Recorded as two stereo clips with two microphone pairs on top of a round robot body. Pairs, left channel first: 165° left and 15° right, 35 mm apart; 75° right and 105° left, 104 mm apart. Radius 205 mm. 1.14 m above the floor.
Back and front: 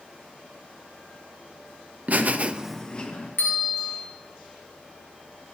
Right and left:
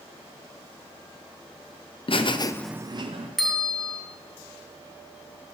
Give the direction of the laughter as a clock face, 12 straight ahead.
2 o'clock.